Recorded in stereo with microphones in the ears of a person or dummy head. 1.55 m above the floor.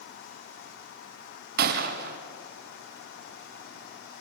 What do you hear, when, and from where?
1.6 s a gunshot: 55° right (ahead or behind), 1.7 m